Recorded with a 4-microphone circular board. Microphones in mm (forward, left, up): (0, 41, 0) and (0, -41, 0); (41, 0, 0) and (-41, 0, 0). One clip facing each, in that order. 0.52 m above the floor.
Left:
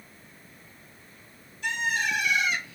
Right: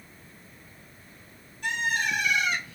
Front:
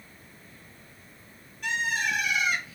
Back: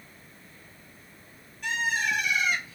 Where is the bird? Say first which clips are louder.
Even, even; 90° right, 1.8 m.